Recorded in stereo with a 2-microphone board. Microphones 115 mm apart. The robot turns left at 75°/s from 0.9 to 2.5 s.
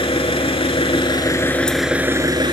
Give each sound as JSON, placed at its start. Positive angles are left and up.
{"t": 0.0, "sound": "an engine running", "azimuth_deg": 65, "distance_m": 0.8}